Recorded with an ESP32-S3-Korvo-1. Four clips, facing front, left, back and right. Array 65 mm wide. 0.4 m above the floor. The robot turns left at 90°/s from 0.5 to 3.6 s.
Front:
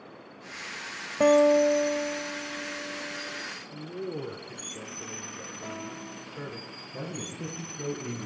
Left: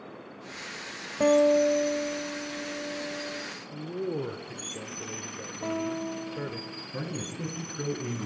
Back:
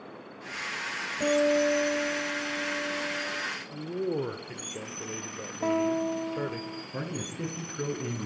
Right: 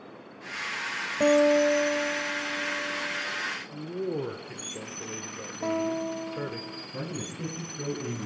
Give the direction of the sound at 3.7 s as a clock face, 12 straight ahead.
6 o'clock.